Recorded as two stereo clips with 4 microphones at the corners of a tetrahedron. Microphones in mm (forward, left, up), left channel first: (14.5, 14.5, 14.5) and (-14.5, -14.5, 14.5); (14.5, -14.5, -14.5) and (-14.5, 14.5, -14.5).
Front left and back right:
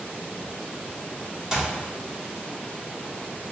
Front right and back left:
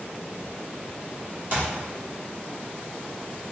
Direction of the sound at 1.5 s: 155° left.